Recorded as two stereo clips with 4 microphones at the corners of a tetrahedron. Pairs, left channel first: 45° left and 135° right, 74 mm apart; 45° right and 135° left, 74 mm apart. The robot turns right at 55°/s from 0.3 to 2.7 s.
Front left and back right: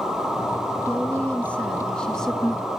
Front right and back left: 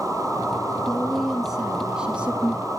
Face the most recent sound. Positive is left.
turn(degrees=130)